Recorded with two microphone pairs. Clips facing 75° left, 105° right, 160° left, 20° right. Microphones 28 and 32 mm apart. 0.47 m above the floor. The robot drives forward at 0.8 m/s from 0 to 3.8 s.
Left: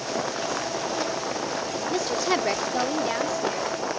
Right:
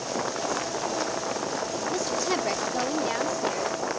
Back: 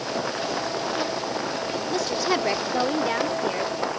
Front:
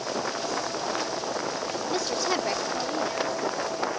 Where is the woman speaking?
60° left; by 3.9 s 165° left.